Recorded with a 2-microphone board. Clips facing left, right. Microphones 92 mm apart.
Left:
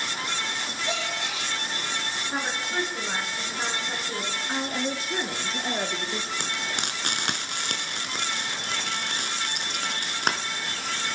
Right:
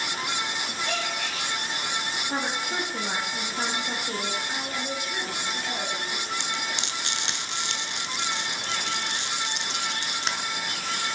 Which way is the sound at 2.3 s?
40° right (ahead or behind).